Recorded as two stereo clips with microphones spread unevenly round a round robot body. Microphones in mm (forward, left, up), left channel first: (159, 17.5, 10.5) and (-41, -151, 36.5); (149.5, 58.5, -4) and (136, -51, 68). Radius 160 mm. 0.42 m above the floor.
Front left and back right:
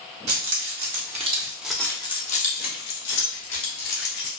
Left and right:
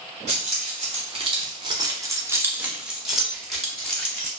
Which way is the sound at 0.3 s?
160° right.